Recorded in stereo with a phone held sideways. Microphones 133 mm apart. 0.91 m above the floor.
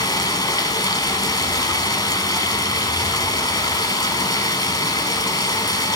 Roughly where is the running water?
Left.